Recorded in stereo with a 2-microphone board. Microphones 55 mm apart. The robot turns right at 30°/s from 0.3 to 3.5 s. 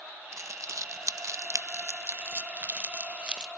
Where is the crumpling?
65° right (ahead or behind), 0.7 m; by 3.5 s 15° right (ahead or behind), 0.7 m.